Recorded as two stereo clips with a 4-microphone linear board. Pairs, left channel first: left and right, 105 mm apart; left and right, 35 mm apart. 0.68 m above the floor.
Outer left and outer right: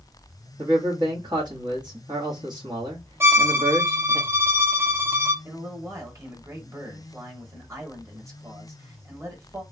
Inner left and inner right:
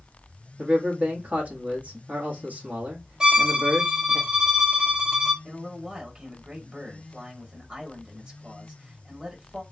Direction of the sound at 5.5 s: 30° right (ahead or behind).